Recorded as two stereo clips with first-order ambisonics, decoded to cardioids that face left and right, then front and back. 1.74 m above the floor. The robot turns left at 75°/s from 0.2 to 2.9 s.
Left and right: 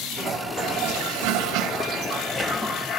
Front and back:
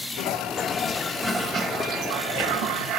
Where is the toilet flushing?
15° right, 1.0 m; by 3.0 s 140° left, 1.0 m.